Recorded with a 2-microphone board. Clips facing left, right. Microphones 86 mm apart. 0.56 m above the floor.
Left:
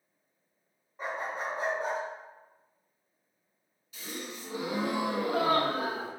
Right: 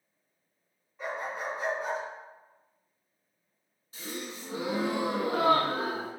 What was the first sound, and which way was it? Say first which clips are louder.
A dog barking: even; 35° left (ahead or behind).